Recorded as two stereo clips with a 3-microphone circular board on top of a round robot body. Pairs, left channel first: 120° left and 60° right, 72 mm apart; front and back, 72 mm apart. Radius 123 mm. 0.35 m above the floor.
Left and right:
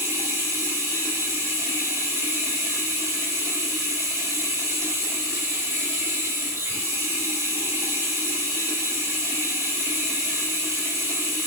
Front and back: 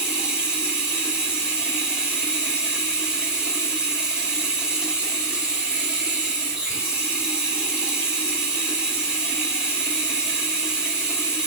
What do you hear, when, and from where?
0.0 s running water: 105° right, 1.8 m